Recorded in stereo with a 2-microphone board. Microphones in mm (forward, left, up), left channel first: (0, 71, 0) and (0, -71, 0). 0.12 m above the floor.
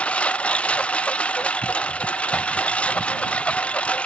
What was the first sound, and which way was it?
A lawn mower, 10° left (ahead or behind).